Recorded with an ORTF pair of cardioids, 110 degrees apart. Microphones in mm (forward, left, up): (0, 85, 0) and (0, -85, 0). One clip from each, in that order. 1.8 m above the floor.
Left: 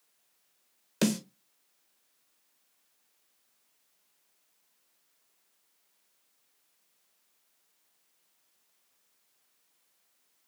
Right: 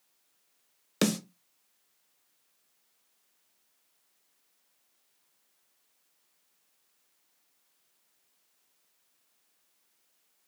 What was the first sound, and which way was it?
A snare drum, 30° right.